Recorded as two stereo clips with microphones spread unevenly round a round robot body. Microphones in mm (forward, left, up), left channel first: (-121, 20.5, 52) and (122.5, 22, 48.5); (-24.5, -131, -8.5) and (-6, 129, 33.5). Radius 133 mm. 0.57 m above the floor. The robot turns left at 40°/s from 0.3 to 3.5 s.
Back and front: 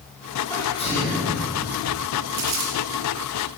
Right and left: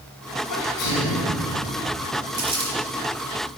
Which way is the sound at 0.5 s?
100° right.